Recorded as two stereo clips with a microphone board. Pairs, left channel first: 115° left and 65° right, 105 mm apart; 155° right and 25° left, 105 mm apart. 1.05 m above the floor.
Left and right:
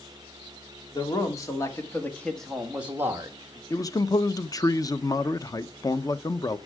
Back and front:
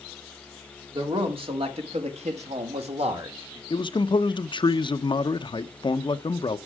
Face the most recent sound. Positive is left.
turn(degrees=165)